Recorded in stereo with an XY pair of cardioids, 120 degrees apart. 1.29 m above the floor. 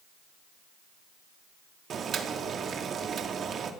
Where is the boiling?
45° right, 3 m.